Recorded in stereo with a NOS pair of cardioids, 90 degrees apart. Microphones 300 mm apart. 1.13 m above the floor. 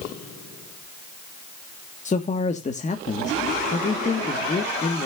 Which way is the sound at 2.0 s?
25° left.